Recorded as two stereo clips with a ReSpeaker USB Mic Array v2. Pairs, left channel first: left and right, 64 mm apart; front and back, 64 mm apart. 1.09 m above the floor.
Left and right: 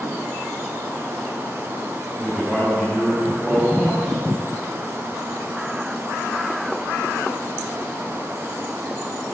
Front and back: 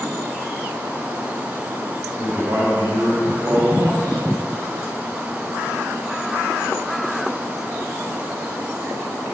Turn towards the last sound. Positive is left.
turn(degrees=-165)